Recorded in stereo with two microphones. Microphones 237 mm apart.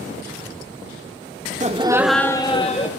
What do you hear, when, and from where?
1.6 s laughter: 30° right (ahead or behind), 0.5 m; by 2.9 s 30° left (ahead or behind), 0.9 m